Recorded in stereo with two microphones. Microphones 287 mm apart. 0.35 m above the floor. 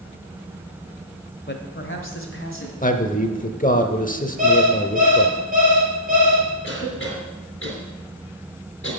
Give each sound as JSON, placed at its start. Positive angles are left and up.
{"t": 1.5, "sound": "a man speaking", "side_deg": 35, "distance_m": 1.1}
{"t": 2.8, "sound": "a man speaking", "side_deg": 30, "distance_m": 0.9}
{"t": 4.4, "sound": "an alarm clock", "side_deg": -30, "distance_m": 4.0}
{"t": 6.6, "sound": "a cough", "side_deg": 45, "distance_m": 4.0}